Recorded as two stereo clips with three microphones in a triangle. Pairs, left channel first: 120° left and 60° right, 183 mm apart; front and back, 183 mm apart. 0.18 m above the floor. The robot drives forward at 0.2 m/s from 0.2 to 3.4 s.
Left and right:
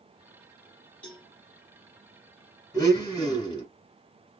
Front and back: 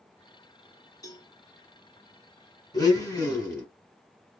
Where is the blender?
60° left, 1.6 m; by 3.6 s 65° left, 1.6 m.